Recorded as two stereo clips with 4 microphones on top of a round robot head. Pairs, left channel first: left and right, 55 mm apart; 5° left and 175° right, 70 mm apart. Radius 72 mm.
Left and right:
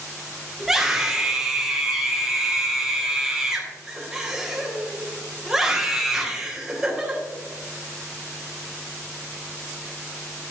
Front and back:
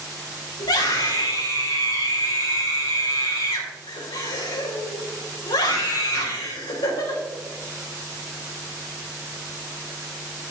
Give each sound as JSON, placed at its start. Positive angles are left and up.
{"t": 0.6, "sound": "a scream", "azimuth_deg": -5, "distance_m": 3.5}